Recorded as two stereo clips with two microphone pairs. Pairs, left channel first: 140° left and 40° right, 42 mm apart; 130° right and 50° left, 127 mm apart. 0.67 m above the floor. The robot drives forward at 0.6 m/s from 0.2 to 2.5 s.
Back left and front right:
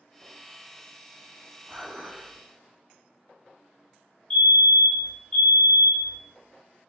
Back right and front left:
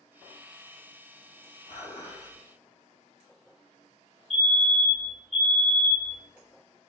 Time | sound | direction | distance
1.7 | dishes clattering | 100° right | 2 m
4.3 | a fire alarm | 140° left | 1.5 m